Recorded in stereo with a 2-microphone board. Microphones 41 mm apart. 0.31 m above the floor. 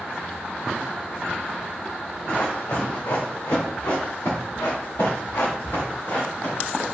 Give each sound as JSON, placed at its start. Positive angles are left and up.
{"t": 2.3, "sound": "running footsteps", "side_deg": 55, "distance_m": 2.0}